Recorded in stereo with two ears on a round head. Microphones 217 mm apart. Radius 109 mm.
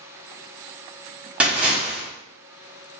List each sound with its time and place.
1.4 s a splash: 5° right (ahead or behind), 1.6 m